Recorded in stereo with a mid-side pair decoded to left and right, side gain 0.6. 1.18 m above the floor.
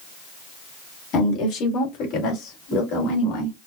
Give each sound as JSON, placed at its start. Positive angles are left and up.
{"t": 1.1, "sound": "a woman speaking", "azimuth_deg": 60, "distance_m": 2.5}